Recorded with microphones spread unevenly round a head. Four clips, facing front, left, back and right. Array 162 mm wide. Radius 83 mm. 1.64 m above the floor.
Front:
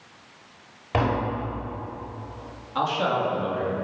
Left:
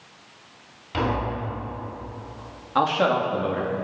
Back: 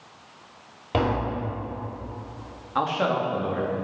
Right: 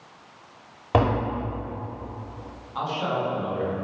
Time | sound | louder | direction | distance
0.9 | tapping | right 3 dB, even | 100° right | 5.5 m
2.8 | a man speaking | left 6 dB, even | 95° left | 3 m